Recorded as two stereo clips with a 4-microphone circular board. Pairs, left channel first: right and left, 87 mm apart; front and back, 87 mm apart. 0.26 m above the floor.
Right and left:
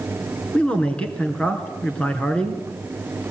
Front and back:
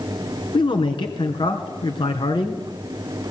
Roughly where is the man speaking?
Ahead.